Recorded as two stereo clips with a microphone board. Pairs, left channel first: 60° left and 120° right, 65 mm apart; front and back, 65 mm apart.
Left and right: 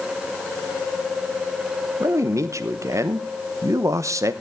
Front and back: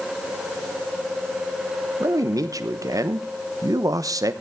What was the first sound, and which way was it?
A man speaking, 155° right.